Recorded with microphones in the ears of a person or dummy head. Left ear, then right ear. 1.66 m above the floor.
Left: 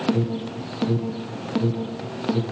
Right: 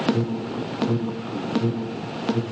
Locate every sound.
0.1 s an alarm: 10° right (ahead or behind), 1.1 m